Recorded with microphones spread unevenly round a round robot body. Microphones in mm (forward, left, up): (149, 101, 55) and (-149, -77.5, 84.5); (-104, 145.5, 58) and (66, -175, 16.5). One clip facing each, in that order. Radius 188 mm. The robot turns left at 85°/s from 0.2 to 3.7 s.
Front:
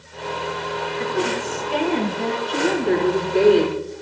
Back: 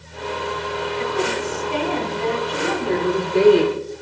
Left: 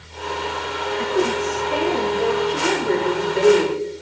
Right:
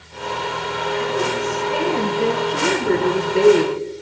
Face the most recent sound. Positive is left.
turn(degrees=-85)